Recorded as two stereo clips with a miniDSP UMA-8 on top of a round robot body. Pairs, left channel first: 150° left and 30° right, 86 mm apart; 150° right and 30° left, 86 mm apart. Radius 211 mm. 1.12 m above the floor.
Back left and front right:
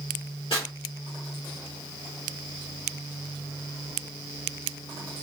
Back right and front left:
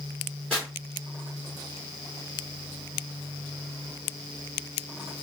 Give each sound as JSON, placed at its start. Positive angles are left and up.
{"t": 0.5, "sound": "tearing paper", "azimuth_deg": 130, "distance_m": 0.6}